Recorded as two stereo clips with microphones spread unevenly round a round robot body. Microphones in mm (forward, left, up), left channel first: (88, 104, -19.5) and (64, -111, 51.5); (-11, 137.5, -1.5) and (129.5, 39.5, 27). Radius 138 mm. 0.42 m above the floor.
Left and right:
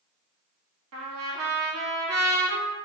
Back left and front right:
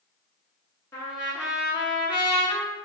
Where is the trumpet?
130° right, 0.9 m.